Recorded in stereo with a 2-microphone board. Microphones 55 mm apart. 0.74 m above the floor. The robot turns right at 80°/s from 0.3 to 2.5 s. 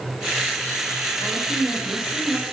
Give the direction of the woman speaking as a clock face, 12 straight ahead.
8 o'clock.